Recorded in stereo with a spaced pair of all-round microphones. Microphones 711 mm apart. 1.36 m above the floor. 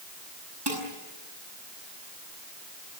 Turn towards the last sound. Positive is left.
turn(degrees=-35)  # may be behind; listen again after turning